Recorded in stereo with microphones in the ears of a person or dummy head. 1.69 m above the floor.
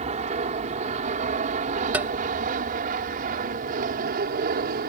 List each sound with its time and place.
0.0 s an aircraft: 35° right (ahead or behind); by 4.9 s 50° right (ahead or behind)
1.9 s tapping: 10° right (ahead or behind)